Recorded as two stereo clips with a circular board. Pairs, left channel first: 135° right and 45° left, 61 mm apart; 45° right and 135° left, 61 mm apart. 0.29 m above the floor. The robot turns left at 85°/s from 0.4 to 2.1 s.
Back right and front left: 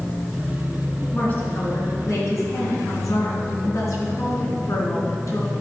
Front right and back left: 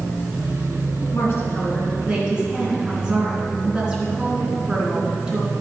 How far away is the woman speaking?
About 3 m.